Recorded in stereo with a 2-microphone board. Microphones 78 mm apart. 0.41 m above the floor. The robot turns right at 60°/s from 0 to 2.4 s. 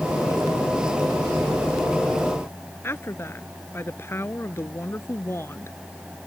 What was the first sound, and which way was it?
A woman speaking, 30° left (ahead or behind).